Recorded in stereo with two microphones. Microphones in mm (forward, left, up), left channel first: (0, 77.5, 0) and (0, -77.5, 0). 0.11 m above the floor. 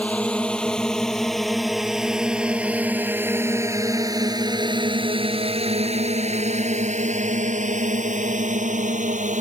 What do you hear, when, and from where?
0.0 s a drone: 10° left (ahead or behind); by 9.4 s 55° right (ahead or behind)